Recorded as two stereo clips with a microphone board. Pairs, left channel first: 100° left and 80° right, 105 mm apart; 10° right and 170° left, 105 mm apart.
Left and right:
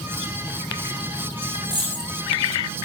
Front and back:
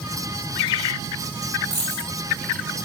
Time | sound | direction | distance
1.6 | a dropped coin | 25° right | 5 m